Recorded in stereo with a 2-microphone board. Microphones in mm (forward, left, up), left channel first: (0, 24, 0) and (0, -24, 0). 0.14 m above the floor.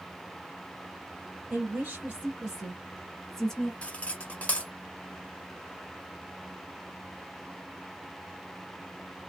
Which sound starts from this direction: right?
A woman speaking, at 1.5 s.